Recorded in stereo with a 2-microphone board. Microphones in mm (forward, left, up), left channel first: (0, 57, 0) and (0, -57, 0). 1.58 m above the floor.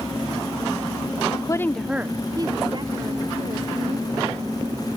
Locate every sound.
1.3 s a woman speaking: 45° left (ahead or behind), 0.6 m; by 4.9 s 60° right (ahead or behind), 3 m